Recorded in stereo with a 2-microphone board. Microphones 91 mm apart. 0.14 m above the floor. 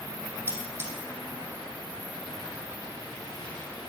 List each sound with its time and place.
0.5 s cutlery clinking: 25° right (ahead or behind), 3.5 m